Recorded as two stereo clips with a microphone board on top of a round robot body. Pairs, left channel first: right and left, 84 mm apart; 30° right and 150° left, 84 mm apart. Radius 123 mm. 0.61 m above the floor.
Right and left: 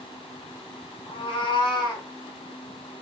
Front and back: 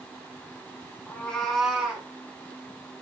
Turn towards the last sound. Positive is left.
turn(degrees=-130)